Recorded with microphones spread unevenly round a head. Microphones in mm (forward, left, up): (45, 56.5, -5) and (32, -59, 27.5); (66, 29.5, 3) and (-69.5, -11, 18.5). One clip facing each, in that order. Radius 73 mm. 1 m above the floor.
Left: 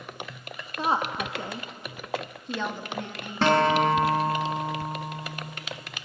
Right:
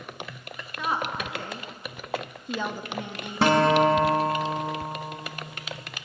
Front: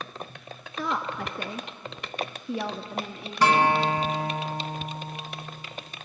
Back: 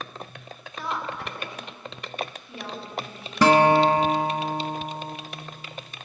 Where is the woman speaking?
30° left, 1.5 m; by 3.7 s 25° right, 1.9 m.